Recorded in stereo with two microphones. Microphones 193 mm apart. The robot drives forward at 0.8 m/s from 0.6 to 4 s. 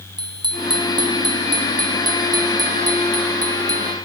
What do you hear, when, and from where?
0.2 s a bicycle bell: 25° right (ahead or behind); by 4.0 s 20° right (ahead or behind)